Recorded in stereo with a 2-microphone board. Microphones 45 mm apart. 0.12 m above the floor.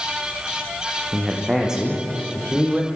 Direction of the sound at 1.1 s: 15° right (ahead or behind).